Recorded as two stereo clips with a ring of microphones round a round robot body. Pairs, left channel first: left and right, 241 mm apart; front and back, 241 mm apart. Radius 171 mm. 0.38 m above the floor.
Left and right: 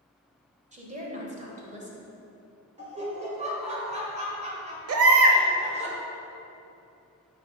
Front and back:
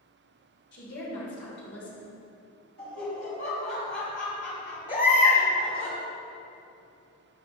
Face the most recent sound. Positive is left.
turn(degrees=-75)